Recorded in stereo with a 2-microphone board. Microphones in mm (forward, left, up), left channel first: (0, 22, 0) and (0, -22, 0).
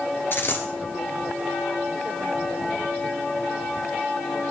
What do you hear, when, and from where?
0.3 s a dropped coin: 55° left (ahead or behind), 1.4 m